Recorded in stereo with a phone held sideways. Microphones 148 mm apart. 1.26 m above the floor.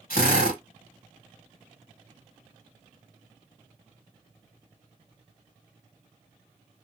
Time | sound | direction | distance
0.1 | a drill | 80° left | 2.5 m